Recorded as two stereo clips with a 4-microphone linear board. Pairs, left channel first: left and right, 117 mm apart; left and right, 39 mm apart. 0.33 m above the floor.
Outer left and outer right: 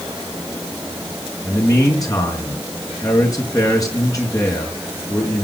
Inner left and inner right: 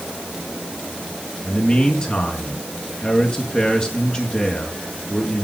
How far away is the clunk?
No clunk in this recording.